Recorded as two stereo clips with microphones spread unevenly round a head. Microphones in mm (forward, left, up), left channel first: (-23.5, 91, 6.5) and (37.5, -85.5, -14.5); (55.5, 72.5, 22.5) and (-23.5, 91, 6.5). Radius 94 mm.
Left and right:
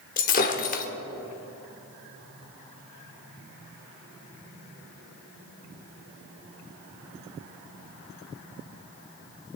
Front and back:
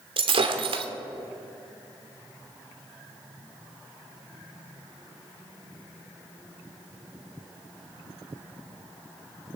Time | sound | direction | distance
0.2 | breaking glass | 155° left | 1.4 m